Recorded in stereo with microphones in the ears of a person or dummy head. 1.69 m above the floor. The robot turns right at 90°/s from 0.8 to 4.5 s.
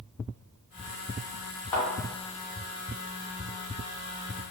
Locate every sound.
1.7 s a thud: 10° left (ahead or behind), 1.6 m; by 1.9 s centre (ahead or behind), 1.6 m